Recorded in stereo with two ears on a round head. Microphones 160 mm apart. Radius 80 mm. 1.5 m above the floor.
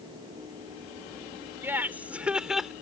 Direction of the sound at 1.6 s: 15° right (ahead or behind).